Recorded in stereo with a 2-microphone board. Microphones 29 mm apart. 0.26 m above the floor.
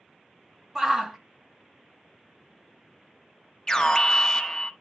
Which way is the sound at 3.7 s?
25° left (ahead or behind).